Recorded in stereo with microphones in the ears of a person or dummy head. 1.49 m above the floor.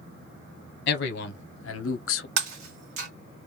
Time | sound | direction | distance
0.9 | a man speaking | 60° left (ahead or behind) | 1.1 m
2.4 | breaking glass | 50° right (ahead or behind) | 1.3 m